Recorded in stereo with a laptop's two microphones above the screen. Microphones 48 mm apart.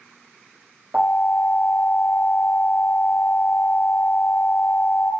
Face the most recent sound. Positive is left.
turn(degrees=-50)  # may be behind; listen again after turning